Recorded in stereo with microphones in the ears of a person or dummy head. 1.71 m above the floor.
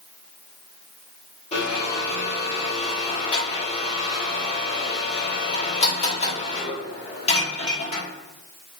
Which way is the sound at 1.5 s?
35° left (ahead or behind).